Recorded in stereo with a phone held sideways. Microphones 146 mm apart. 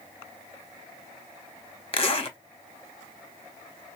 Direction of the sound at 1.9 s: 40° left (ahead or behind).